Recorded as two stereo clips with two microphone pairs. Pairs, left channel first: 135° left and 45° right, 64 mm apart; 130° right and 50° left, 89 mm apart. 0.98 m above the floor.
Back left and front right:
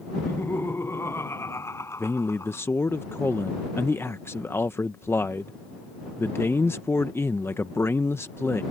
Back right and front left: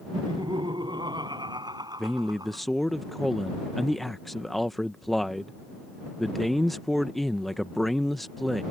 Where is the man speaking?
145° left.